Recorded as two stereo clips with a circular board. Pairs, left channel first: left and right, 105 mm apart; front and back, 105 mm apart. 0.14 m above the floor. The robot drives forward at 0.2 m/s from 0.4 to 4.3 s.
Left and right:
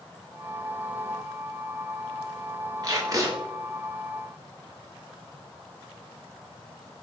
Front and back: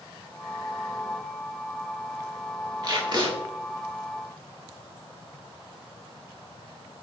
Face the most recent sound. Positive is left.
turn(degrees=-150)